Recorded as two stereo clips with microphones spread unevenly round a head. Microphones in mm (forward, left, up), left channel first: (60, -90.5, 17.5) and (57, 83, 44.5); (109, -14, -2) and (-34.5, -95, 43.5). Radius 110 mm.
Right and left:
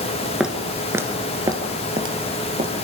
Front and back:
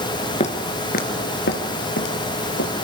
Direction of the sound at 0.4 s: 40° left.